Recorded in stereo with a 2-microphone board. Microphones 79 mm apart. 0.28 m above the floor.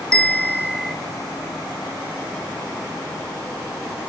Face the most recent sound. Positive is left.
turn(degrees=10)  # may be behind; listen again after turning